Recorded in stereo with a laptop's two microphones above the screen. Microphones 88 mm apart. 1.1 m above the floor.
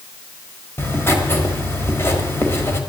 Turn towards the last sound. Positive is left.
turn(degrees=25)  # may be behind; listen again after turning